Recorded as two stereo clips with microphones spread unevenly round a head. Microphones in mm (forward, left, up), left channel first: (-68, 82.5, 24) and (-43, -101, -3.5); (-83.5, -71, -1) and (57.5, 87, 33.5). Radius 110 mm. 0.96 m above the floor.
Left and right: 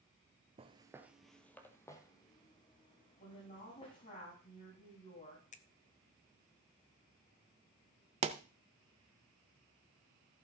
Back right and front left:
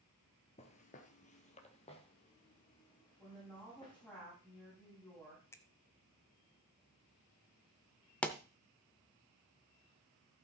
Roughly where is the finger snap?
Behind left.